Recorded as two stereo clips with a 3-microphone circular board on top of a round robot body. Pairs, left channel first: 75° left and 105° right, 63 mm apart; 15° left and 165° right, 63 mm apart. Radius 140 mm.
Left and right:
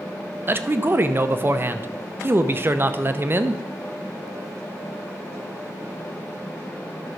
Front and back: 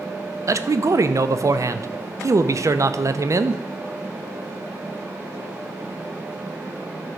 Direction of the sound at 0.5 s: 150° right.